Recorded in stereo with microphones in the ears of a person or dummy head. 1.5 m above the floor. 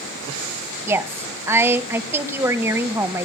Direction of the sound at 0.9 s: 15° right (ahead or behind).